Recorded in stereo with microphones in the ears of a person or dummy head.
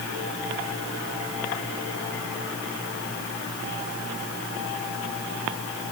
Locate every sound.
Only background noise.